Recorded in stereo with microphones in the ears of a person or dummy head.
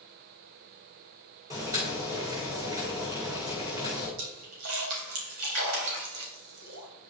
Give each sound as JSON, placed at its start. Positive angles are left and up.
{"t": 1.5, "sound": "boiling", "side_deg": -15, "distance_m": 2.5}
{"t": 4.2, "sound": "a splash", "side_deg": -80, "distance_m": 3.5}